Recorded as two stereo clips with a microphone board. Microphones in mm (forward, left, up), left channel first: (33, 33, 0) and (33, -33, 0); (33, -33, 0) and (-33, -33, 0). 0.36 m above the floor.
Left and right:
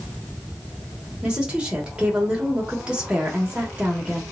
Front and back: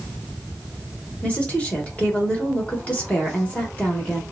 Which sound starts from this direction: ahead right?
A woman speaking, at 1.2 s.